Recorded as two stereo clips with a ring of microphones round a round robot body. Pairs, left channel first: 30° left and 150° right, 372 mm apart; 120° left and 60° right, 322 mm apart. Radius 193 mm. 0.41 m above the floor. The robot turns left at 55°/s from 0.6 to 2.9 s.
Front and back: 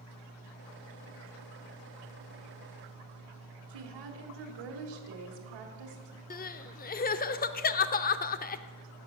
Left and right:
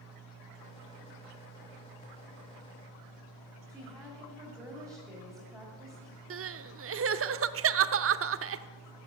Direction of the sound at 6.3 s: 30° right.